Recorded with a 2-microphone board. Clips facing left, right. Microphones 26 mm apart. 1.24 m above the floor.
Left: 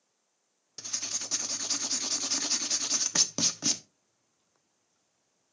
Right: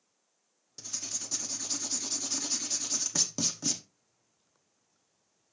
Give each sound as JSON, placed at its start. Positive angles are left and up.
{"t": 0.8, "sound": "writing", "side_deg": 35, "distance_m": 0.8}